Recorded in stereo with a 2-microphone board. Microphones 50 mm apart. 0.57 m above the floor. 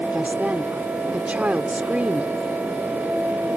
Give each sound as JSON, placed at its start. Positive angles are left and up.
{"t": 0.1, "sound": "a woman speaking", "side_deg": -35}